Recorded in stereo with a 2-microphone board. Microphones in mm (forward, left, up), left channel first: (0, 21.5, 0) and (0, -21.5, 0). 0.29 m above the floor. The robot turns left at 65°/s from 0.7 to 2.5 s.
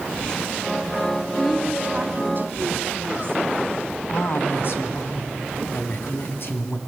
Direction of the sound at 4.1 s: 60° left (ahead or behind).